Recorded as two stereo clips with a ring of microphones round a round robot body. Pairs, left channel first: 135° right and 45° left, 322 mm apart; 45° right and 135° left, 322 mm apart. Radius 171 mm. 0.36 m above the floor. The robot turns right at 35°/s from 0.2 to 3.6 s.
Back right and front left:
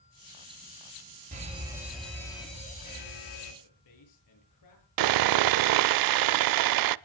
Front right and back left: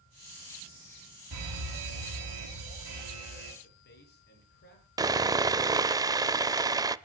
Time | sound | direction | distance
1.3 | a fire alarm | 110° left | 5 m
3.6 | a man speaking | 105° right | 8 m
5.0 | sawing | 55° left | 0.5 m